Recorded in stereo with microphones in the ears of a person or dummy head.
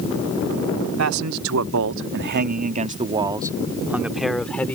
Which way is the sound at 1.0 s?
85° right.